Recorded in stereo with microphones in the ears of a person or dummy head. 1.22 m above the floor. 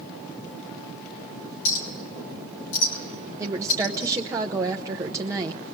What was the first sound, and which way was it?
A clink, 75° left (ahead or behind).